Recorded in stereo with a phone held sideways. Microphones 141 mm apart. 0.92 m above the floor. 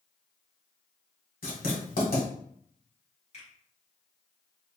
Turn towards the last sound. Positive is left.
turn(degrees=50)  # may be behind; listen again after turning